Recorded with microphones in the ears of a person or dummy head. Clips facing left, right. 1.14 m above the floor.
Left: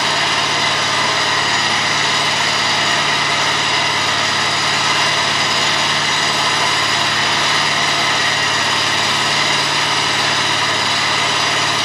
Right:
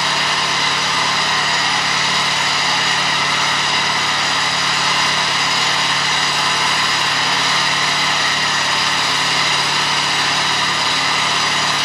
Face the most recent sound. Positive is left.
turn(degrees=75)  # may be behind; listen again after turning